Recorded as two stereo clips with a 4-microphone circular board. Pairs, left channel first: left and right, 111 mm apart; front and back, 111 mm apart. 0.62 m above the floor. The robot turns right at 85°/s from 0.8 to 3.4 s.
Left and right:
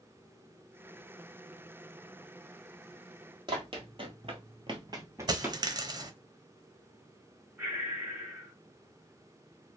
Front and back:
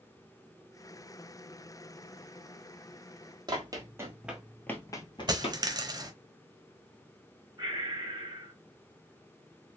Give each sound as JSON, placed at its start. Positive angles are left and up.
{"t": 3.5, "sound": "running footsteps", "azimuth_deg": -130, "distance_m": 1.3}
{"t": 5.3, "sound": "a dropped coin", "azimuth_deg": -135, "distance_m": 0.5}
{"t": 7.6, "sound": "breathing", "azimuth_deg": -150, "distance_m": 1.4}